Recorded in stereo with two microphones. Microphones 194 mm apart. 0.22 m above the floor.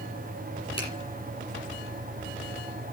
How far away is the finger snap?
About 7.5 m.